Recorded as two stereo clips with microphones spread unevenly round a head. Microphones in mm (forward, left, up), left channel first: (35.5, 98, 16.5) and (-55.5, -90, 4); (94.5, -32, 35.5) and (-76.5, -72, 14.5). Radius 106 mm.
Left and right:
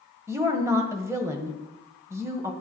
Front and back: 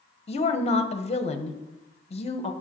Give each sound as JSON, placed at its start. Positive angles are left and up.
{"t": 0.3, "sound": "a woman speaking", "azimuth_deg": -35, "distance_m": 1.2}